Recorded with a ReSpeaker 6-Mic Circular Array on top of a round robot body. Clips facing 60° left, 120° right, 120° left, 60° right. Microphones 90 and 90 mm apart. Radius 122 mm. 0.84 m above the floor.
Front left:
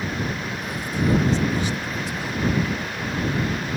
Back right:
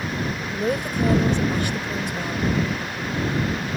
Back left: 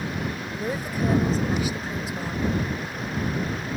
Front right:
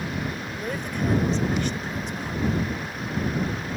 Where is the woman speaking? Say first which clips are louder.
Back right 4 dB, back left 3 dB; 155° right.